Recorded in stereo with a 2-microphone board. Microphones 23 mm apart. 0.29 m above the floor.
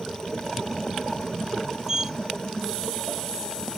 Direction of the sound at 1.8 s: 20° right (ahead or behind).